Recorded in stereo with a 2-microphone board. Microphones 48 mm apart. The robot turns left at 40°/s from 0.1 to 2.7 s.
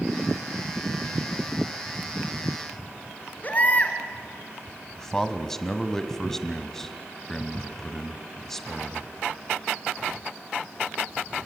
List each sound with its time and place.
3.4 s a baby crying: 35° left (ahead or behind), 1.8 m
5.0 s a man speaking: 10° left (ahead or behind), 1.4 m